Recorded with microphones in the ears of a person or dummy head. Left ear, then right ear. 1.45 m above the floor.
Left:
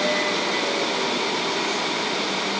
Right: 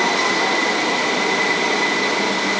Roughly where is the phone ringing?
I don't hear a phone ringing.